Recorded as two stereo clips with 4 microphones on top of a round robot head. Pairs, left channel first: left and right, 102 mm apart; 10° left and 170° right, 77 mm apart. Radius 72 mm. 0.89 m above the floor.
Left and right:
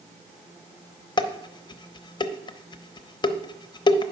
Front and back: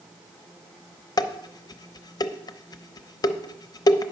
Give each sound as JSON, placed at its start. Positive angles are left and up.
{"t": 1.2, "sound": "dishes clattering", "azimuth_deg": 45, "distance_m": 0.7}